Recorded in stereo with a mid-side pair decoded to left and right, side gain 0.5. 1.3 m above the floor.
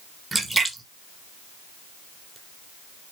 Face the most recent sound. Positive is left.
turn(degrees=-10)